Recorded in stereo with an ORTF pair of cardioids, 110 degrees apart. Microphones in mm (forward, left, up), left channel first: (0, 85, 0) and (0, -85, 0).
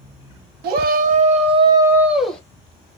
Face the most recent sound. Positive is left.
turn(degrees=5)